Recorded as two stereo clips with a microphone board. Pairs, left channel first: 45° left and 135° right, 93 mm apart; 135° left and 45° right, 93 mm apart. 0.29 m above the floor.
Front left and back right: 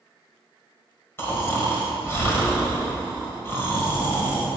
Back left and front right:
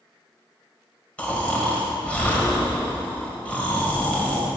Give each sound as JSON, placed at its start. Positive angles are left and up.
{"t": 1.2, "sound": "snoring", "azimuth_deg": 75, "distance_m": 1.6}